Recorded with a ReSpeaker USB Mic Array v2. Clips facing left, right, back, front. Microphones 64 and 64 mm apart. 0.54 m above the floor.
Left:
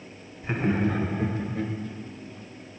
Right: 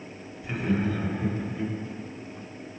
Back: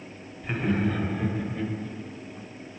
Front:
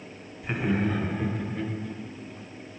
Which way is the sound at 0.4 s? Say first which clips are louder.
Left 2 dB, even; 75° left.